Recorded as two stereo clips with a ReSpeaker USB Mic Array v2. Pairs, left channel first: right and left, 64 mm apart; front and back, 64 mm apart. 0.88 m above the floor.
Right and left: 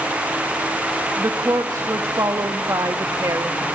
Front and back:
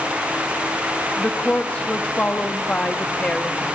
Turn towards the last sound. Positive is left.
turn(degrees=70)